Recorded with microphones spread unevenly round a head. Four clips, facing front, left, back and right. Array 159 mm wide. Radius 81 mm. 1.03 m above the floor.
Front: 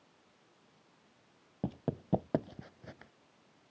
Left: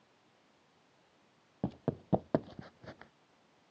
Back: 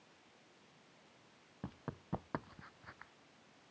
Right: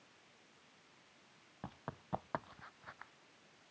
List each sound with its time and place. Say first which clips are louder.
1.6 s running footsteps: left 12 dB, front 11 dB; 60° left; by 3.1 s 65° left